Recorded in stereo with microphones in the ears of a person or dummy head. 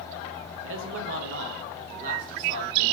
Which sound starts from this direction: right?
A man speaking, at 0.6 s.